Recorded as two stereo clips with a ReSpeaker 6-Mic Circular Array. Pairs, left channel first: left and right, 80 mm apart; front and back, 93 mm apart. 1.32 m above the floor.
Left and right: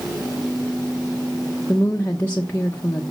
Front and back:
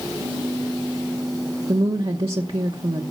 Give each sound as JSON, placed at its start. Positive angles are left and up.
{"t": 1.7, "sound": "a woman speaking", "azimuth_deg": 160, "distance_m": 0.9}